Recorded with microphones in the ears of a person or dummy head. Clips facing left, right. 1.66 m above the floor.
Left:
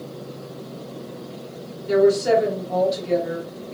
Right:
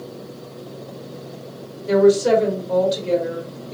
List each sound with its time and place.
1.9 s a woman speaking: 65° right (ahead or behind), 1.5 m